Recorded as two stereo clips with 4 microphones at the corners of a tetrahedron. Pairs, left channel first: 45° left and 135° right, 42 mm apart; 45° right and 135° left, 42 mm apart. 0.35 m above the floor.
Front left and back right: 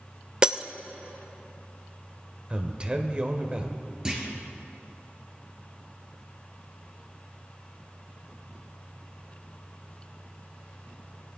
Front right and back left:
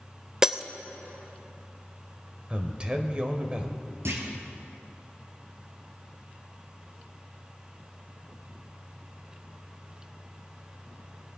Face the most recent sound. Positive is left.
turn(degrees=150)